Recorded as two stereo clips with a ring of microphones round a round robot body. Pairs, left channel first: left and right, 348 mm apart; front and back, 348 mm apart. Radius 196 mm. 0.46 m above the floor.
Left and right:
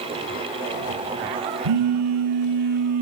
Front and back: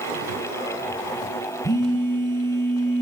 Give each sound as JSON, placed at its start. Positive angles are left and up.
{"t": 1.6, "sound": "a phone buzzing", "azimuth_deg": -80, "distance_m": 7.0}